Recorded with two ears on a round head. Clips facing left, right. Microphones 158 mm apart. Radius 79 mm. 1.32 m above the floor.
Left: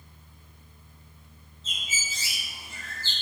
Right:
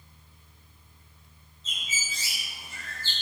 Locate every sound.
1.6 s a bird: 35° left (ahead or behind), 1.3 m